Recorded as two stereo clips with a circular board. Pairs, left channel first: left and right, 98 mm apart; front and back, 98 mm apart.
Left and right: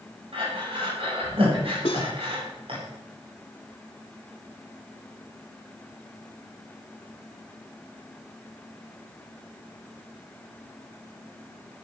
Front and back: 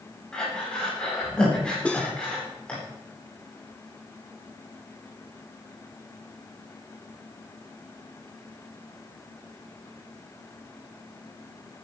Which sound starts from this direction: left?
Cutlery clinking, at 1.9 s.